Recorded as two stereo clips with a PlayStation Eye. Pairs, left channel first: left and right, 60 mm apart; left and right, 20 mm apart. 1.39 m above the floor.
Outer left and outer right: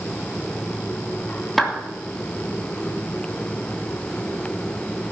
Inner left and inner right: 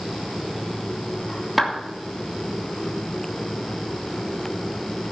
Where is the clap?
5° left (ahead or behind), 2.5 m.